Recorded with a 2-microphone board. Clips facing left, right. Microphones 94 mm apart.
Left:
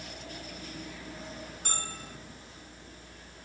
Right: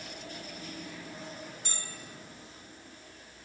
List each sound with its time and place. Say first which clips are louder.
1.6 s a bell: left 5 dB; 50° left (ahead or behind)